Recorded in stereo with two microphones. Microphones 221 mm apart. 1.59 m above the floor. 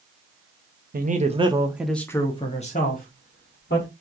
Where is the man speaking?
45° right (ahead or behind), 0.7 m; by 3.9 s 55° left (ahead or behind), 1.2 m.